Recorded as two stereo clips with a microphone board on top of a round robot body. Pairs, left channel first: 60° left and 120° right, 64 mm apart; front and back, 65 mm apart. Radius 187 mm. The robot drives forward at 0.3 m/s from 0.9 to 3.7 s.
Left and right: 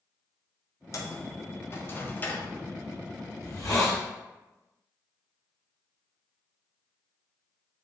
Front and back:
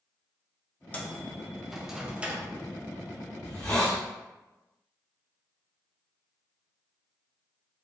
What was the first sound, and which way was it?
A microwave, 60° left.